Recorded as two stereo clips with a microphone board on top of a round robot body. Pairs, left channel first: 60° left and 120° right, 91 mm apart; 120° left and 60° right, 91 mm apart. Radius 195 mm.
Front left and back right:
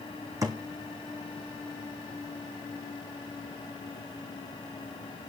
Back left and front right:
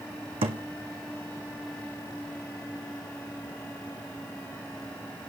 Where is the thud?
70° right, 1.6 m.